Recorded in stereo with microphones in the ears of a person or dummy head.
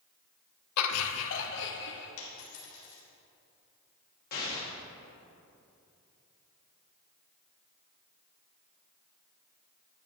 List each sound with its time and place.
0.8 s laughter: 90° left, 0.6 m; by 2.1 s 55° left (ahead or behind), 1.2 m
2.2 s a dropped coin: 70° left (ahead or behind), 3 m
4.3 s an explosion: 45° left (ahead or behind), 1.9 m